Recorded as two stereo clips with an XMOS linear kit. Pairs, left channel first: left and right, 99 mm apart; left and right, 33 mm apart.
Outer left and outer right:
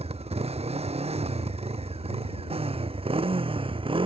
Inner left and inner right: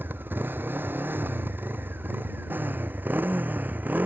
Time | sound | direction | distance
0.0 | a motorcycle | 80° right | ?